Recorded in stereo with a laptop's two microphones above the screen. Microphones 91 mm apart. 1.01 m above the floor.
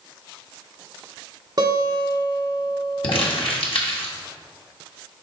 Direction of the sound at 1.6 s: 50° right (ahead or behind).